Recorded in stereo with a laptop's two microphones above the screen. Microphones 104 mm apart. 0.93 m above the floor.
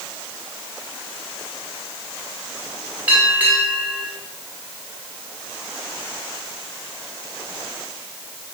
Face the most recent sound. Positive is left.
turn(degrees=-15)  # may be behind; listen again after turning